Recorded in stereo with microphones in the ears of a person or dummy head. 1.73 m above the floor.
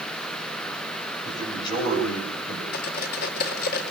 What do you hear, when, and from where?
1.2 s a man speaking: 25° left (ahead or behind), 9 m
2.7 s cutlery clinking: 50° left (ahead or behind), 1.9 m